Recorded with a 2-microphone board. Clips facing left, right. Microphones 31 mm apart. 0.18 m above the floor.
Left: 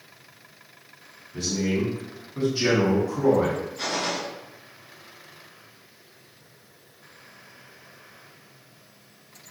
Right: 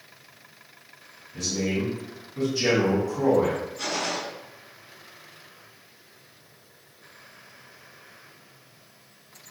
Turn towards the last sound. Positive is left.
turn(degrees=30)  # may be behind; listen again after turning